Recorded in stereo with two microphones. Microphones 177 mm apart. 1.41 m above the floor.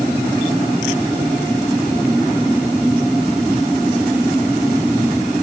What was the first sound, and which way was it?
Only background noise.